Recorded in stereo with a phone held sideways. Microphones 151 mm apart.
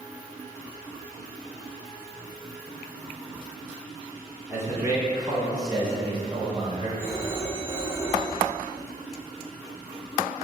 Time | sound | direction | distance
4.5 | a man speaking | 15° right (ahead or behind) | 2.5 m
7.0 | a phone ringing | 10° right (ahead or behind) | 1.9 m